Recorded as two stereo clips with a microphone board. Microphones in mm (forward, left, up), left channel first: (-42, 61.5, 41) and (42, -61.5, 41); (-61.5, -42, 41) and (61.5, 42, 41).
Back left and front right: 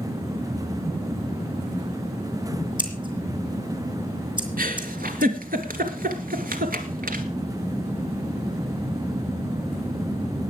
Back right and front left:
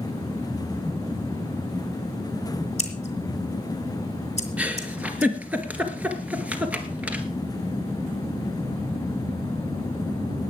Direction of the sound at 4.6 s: 45° right.